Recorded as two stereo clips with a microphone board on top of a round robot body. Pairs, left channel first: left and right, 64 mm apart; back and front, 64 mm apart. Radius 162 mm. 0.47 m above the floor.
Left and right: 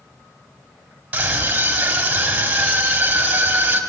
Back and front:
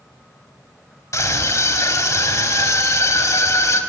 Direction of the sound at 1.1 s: 155° right.